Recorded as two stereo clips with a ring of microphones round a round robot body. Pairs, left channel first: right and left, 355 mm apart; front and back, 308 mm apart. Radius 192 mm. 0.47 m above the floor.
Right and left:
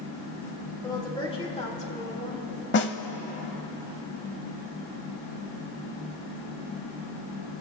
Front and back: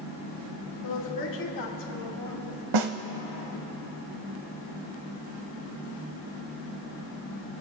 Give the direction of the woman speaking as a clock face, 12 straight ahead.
12 o'clock.